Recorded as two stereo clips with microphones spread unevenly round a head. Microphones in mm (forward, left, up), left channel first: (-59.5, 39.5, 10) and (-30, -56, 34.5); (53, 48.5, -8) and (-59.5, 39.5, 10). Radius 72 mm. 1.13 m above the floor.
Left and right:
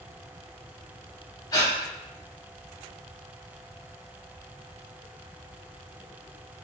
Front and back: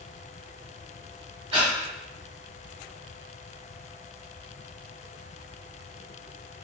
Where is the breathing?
150° left, 1.5 m.